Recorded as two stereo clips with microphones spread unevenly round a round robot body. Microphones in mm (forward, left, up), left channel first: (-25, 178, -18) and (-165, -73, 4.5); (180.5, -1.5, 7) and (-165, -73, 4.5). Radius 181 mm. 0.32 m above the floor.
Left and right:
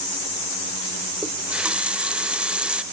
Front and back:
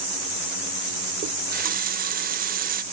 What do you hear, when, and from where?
1.2 s a running tap: 150° left, 0.6 m